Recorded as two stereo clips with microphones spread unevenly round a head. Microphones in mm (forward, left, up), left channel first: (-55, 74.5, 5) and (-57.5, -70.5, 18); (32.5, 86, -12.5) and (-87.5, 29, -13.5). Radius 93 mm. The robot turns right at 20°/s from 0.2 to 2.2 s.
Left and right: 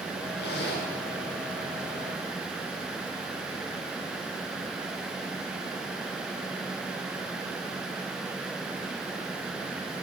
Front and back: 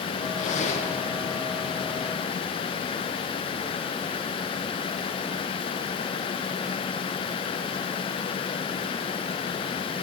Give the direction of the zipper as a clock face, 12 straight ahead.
10 o'clock.